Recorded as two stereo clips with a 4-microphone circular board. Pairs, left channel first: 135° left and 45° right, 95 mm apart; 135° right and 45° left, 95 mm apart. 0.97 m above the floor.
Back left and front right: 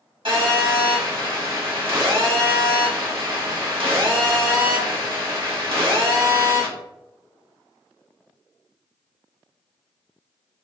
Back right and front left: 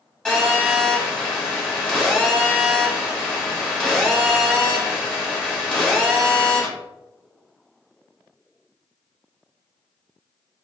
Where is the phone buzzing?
60° right, 1.7 m.